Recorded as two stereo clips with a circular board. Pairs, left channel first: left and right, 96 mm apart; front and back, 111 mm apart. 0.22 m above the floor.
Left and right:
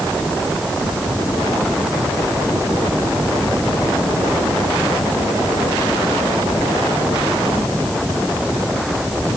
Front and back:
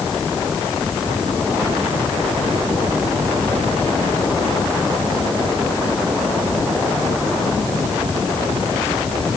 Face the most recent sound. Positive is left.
No sound to turn to.